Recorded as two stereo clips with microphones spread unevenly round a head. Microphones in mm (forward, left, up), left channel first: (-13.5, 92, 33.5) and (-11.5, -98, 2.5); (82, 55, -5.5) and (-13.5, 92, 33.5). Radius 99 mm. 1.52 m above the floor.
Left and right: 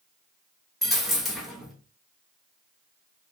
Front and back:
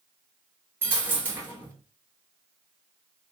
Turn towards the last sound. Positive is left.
turn(degrees=165)